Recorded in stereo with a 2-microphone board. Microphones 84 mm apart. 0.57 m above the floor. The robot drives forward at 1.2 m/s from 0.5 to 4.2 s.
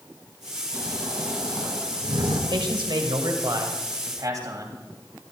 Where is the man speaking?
70° right (ahead or behind), 2 m; by 5.3 s 45° right (ahead or behind), 3 m.